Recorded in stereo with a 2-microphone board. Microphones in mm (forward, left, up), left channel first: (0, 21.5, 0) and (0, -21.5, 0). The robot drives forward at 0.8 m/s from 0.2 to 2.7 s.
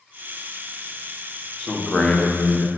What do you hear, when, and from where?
1.6 s a man speaking: 20° left (ahead or behind), 1.2 m; by 2.7 s 60° left (ahead or behind), 0.5 m